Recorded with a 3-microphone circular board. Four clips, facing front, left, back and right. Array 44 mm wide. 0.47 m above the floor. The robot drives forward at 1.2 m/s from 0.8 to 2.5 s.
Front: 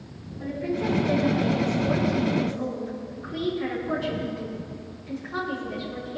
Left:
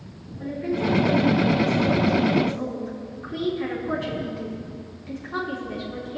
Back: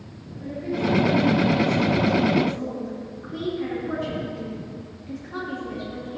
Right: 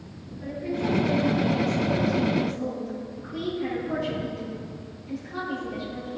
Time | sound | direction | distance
0.4 | a woman speaking | 55° left | 4.5 m